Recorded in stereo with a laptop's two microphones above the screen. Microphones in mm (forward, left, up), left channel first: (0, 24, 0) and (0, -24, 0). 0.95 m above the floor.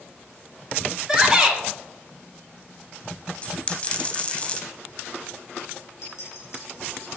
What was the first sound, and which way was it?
A shout, 15° right (ahead or behind).